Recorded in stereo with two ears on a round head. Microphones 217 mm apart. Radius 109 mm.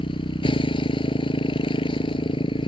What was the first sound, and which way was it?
A motorcycle, 20° left (ahead or behind).